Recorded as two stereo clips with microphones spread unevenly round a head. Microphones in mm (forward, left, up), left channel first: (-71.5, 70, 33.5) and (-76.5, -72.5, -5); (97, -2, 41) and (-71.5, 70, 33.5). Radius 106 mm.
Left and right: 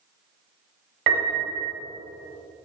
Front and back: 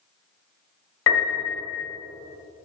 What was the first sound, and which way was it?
A piano, 50° right.